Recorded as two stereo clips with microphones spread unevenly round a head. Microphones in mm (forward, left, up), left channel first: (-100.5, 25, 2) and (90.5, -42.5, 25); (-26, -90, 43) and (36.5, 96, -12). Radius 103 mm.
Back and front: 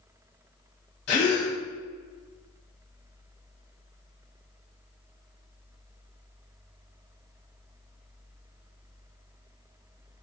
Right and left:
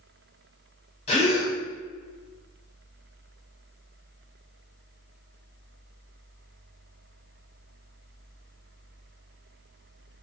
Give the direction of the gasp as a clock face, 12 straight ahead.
6 o'clock.